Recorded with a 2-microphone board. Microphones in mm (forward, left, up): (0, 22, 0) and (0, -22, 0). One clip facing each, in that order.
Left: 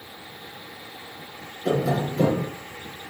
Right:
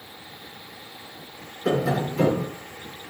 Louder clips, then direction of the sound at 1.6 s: Even; 60° right (ahead or behind).